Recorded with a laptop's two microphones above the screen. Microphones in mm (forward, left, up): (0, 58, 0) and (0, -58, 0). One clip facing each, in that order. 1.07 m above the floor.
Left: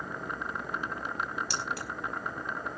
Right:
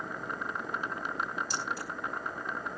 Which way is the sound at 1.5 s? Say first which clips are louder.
Left 1 dB; 70° left (ahead or behind).